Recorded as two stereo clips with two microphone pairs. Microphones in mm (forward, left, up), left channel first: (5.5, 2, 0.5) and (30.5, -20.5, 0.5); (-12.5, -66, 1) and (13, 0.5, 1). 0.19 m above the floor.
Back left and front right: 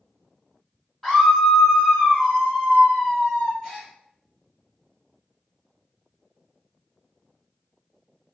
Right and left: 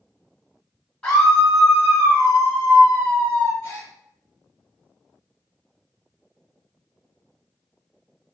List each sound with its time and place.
1.0 s a scream: 160° right, 1.2 m; by 3.5 s 45° left, 1.9 m
3.6 s a gasp: 150° right, 1.4 m